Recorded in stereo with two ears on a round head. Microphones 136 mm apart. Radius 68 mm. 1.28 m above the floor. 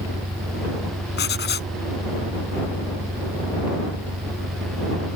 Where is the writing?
75° left (ahead or behind).